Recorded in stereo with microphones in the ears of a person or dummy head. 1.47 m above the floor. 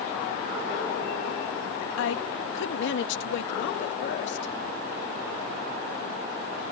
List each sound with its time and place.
2.0 s a woman speaking: 80° left; by 4.5 s 65° left (ahead or behind)